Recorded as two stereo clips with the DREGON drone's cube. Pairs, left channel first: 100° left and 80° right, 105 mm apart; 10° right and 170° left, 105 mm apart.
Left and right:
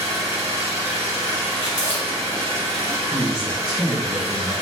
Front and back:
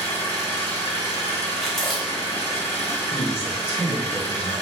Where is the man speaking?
5° left, 1.7 m.